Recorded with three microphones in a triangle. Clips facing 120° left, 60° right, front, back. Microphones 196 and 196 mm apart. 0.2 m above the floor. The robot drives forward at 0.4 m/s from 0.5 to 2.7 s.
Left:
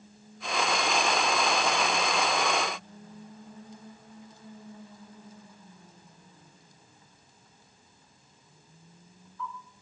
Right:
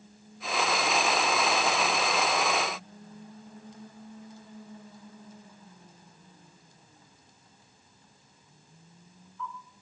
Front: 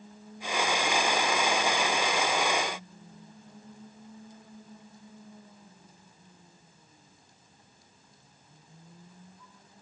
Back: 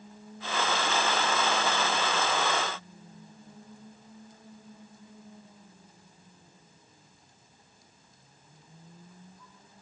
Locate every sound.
Only background noise.